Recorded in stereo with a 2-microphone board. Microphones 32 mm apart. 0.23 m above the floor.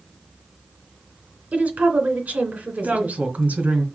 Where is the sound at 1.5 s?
55° right (ahead or behind), 2.5 m.